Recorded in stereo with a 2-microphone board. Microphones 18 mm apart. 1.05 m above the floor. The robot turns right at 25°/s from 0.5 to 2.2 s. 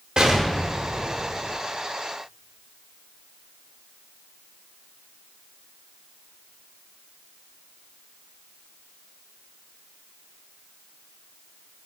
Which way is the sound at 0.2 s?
55° right (ahead or behind).